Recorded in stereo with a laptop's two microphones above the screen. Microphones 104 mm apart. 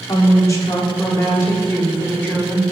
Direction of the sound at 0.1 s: 40° left (ahead or behind).